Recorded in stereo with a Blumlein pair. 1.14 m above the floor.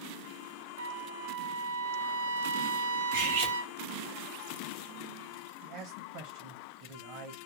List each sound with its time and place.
0.8 s a trumpet: 60° right, 0.6 m
3.1 s cutlery clinking: 60° right, 1.2 m
5.6 s a man speaking: 50° right, 0.8 m